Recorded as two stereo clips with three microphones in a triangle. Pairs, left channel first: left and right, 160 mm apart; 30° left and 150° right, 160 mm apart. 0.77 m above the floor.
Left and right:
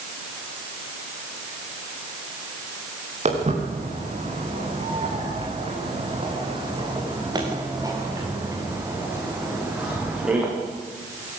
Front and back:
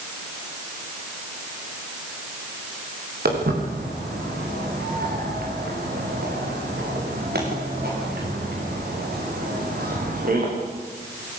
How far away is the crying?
No crying in this recording.